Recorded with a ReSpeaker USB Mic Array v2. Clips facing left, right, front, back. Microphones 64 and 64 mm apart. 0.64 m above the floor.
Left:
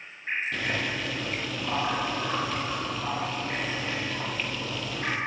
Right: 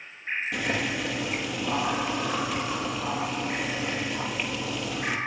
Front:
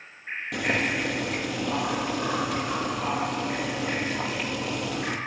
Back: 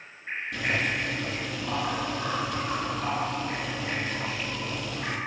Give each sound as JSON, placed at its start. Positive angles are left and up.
{"t": 0.5, "sound": "boiling", "azimuth_deg": -10, "distance_m": 8.5}